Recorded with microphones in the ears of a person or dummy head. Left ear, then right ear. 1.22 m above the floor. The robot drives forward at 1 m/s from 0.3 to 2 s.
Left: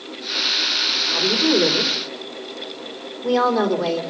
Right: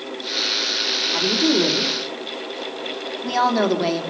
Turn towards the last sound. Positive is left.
turn(degrees=-30)  # may be behind; listen again after turning